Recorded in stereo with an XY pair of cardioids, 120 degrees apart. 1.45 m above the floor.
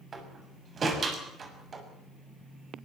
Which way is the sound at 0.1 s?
35° right.